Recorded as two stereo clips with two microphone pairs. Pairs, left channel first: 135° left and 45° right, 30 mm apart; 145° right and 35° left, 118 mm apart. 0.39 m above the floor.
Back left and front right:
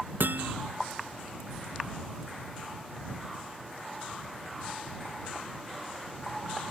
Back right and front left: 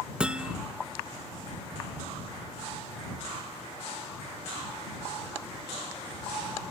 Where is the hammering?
45° right.